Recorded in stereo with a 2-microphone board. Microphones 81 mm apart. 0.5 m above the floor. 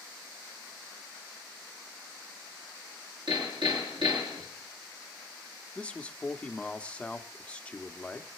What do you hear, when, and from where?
3.3 s hammering: 70° right (ahead or behind), 7.5 m
5.8 s a man speaking: 15° left (ahead or behind), 1.0 m